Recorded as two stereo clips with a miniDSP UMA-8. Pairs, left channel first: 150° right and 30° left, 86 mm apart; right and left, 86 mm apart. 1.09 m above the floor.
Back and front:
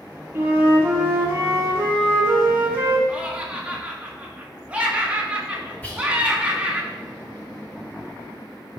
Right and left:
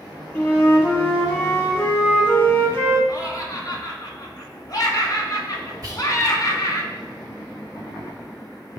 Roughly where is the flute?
Ahead right.